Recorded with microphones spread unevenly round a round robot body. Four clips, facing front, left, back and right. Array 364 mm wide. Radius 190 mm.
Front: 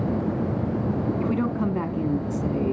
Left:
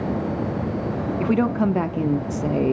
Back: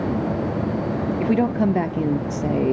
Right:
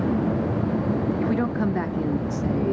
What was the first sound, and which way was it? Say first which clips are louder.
A woman speaking: left 3 dB, back 9 dB; 145° left.